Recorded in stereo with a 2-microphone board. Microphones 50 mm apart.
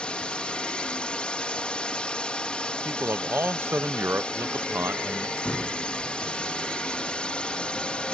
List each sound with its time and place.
0.0 s a drone: 25° left (ahead or behind)
2.9 s a man speaking: 45° right (ahead or behind)
5.4 s a door slam: 30° left (ahead or behind)